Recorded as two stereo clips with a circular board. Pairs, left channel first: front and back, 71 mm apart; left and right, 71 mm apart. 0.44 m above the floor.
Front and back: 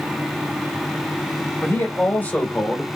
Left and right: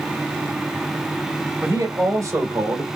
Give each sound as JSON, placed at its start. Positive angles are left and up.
{"t": 1.6, "sound": "a man speaking", "azimuth_deg": -50, "distance_m": 3.0}